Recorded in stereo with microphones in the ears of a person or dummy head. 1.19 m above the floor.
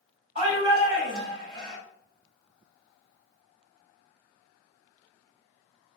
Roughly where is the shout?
Right.